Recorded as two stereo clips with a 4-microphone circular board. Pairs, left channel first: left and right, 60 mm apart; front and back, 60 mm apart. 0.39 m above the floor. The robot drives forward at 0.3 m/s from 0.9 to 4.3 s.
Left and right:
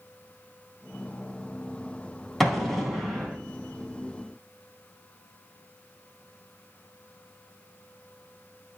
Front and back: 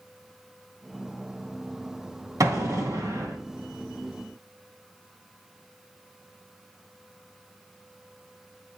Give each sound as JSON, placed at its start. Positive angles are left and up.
{"t": 2.4, "sound": "an explosion", "azimuth_deg": 180, "distance_m": 3.0}